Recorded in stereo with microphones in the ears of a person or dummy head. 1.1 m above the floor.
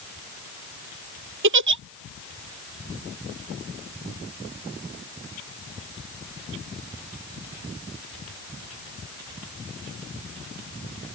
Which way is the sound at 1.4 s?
65° right (ahead or behind).